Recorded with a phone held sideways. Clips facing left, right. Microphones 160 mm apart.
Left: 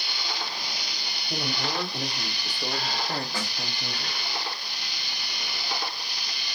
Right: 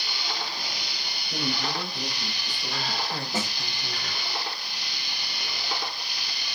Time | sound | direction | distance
1.3 | a man speaking | 80° left | 3.5 m
3.3 | a snare drum | 20° right (ahead or behind) | 1.3 m